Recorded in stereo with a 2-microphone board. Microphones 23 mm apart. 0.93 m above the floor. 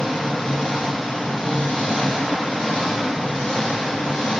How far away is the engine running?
About 1.6 m.